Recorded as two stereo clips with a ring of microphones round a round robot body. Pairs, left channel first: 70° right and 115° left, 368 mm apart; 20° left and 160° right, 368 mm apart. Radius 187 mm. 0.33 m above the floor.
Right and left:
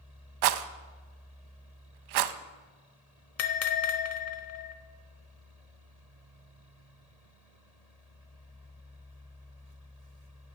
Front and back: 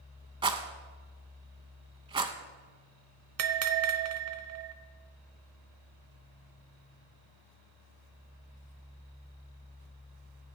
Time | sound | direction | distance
0.4 | a rattle | 125° left | 0.6 m
3.4 | a bell | 115° right | 0.9 m